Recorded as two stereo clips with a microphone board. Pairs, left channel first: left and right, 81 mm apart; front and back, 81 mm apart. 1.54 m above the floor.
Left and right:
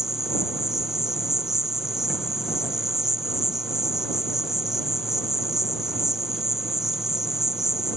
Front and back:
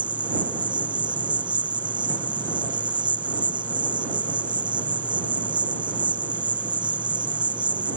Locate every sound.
0.0 s an insect: 175° right